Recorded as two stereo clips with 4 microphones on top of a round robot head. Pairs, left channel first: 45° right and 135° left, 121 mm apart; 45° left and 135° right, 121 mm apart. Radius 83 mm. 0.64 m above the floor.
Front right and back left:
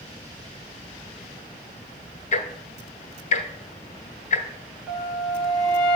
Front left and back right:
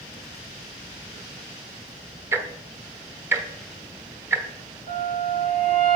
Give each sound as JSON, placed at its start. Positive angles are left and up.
{"t": 2.3, "sound": "ticking", "azimuth_deg": -65, "distance_m": 0.9}
{"t": 4.9, "sound": "a flute", "azimuth_deg": -165, "distance_m": 2.5}